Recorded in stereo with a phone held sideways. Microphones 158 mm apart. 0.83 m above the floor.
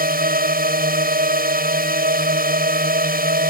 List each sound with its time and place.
0.0 s a drone: 70° right (ahead or behind)